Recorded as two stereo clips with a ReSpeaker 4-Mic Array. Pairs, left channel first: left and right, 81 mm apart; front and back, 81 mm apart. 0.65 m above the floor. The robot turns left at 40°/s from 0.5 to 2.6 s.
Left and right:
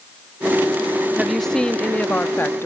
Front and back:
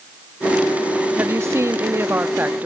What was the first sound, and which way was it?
A woman speaking, 175° right.